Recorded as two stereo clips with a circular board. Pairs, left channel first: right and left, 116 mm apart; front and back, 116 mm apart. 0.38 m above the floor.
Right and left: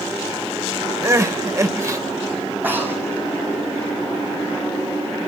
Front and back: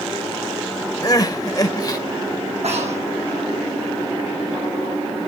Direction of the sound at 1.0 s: 40° left.